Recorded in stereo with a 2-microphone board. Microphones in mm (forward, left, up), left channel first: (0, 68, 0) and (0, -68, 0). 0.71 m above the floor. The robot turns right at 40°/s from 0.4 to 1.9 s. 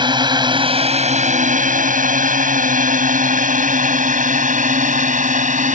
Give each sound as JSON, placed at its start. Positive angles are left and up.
{"t": 0.0, "sound": "a drone", "side_deg": -35}